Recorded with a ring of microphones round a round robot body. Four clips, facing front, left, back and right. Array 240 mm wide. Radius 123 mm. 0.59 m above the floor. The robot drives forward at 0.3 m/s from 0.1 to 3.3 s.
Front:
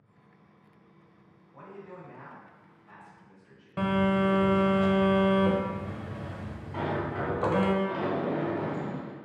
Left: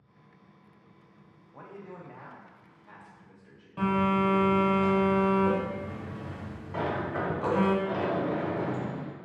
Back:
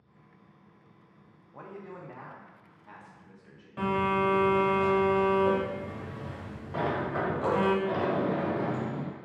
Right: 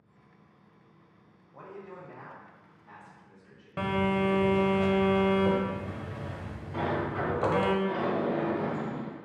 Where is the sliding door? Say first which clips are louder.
Even, back 1 dB; 145° left, 0.6 m.